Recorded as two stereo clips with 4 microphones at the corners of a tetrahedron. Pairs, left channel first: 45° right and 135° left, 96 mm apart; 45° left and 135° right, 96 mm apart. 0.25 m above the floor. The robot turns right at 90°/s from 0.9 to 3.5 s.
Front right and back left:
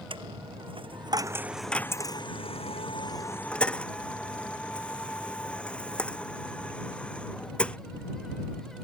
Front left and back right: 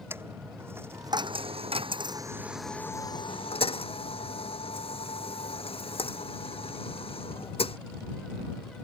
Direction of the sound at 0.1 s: 160° left.